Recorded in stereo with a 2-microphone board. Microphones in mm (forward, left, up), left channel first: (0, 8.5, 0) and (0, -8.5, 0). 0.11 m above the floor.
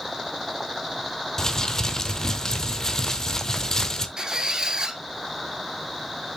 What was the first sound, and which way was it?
Crumpling, 35° left (ahead or behind).